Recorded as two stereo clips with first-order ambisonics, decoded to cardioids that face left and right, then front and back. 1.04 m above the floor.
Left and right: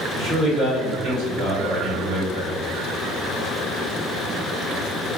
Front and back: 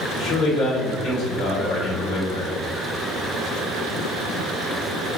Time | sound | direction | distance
0.1 | a man speaking | 40° right | 1.8 m